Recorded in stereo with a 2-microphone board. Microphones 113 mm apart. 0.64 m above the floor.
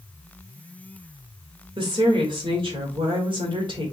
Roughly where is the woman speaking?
Right.